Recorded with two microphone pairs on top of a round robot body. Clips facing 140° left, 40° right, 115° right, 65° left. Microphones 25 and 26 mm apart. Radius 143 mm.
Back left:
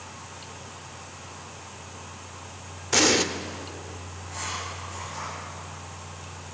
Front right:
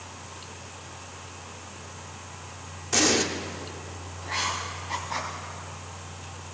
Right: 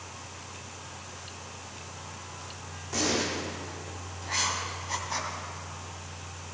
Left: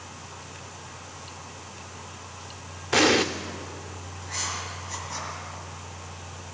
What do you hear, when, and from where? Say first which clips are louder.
2.9 s an explosion: back left 2 dB, left 9 dB; 70° left, 0.5 m
4.2 s writing: front right 5 dB, right 3 dB; 60° right, 2.5 m